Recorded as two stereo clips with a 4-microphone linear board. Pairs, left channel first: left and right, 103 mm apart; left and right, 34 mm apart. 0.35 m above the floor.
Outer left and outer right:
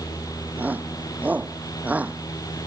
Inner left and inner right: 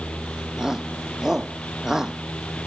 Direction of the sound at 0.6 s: 15° right (ahead or behind).